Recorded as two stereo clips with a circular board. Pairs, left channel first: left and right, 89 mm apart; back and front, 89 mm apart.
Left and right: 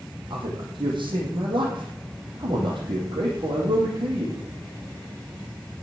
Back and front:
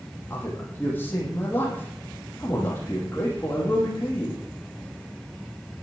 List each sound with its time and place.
0.3 s a man speaking: 115° right, 7.5 m